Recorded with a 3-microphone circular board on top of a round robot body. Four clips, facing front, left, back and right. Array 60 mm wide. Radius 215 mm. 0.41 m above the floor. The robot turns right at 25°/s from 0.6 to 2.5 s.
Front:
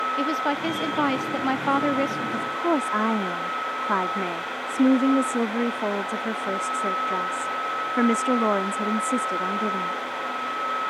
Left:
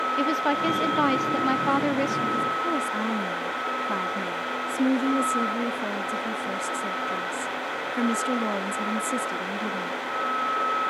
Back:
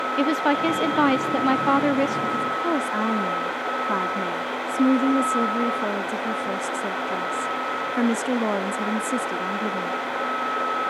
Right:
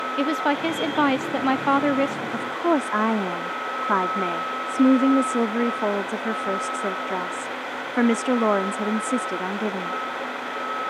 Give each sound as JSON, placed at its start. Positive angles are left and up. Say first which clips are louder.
{"t": 0.2, "sound": "a woman speaking", "louder": "right 4 dB, back 4 dB", "azimuth_deg": -135}
{"t": 2.3, "sound": "a woman speaking", "louder": "right 3 dB, back 1 dB", "azimuth_deg": -75}